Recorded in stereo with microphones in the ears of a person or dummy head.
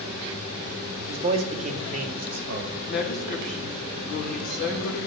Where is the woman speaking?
50° left (ahead or behind), 1.8 m.